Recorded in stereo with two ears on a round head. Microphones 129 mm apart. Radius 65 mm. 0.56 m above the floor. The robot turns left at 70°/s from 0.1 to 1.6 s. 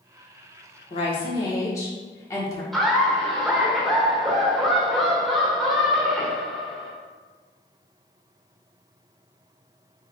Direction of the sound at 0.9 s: 80° left.